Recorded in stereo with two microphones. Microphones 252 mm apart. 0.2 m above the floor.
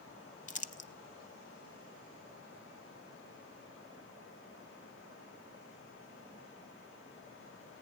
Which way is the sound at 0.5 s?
30° left (ahead or behind).